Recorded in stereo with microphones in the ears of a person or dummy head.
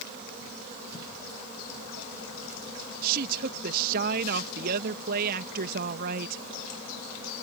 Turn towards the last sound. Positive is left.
turn(degrees=-55)  # may be behind; listen again after turning